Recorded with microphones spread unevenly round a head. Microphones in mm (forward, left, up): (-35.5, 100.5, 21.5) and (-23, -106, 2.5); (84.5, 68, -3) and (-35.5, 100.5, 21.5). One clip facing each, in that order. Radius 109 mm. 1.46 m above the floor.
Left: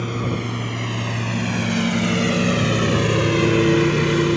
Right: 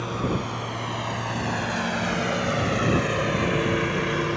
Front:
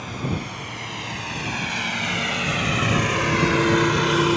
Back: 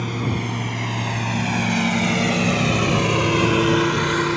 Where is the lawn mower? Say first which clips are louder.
Left 2 dB, back 4 dB; 150° left; by 4.4 s 65° left.